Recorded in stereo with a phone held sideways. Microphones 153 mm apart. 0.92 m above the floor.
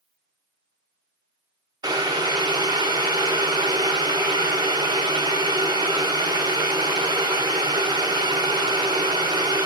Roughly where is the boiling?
Right.